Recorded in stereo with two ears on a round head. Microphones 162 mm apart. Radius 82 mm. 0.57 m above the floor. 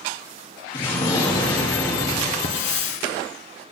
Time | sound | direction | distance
0.7 | an explosion | 30° left (ahead or behind) | 3.5 m
2.4 | a hiss | 45° left (ahead or behind) | 1.5 m